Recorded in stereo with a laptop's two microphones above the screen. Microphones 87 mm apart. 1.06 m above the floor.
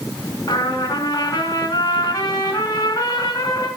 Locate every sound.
0.5 s a trumpet: 40° left (ahead or behind), 4 m